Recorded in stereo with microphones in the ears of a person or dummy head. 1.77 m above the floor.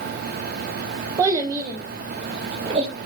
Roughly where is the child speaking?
Centre.